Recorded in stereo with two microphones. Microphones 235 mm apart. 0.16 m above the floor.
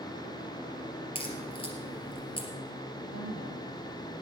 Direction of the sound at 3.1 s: 70° left (ahead or behind).